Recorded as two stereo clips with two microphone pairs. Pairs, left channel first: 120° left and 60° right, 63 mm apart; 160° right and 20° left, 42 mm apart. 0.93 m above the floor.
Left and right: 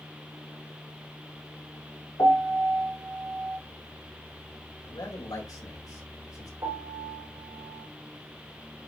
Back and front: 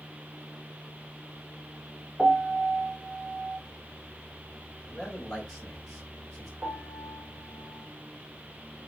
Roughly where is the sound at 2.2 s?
Left.